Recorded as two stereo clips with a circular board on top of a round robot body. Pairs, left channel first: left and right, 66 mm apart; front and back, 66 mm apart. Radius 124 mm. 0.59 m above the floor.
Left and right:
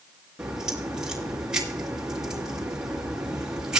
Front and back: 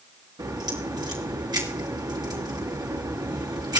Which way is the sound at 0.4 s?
170° right.